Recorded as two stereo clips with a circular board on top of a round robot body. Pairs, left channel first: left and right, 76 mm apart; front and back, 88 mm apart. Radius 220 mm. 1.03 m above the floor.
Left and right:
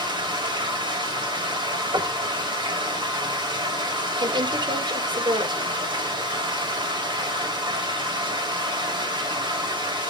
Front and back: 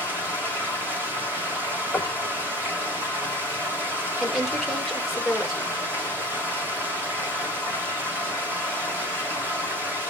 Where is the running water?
110° right, 3.5 m.